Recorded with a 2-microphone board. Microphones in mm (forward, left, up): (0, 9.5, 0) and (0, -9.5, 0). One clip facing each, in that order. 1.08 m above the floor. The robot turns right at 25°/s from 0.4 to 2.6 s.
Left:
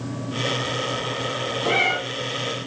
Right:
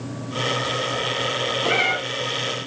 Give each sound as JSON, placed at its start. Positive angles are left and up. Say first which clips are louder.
{"t": 1.6, "sound": "a cat meowing", "louder": "left 1 dB", "side_deg": -25, "distance_m": 1.3}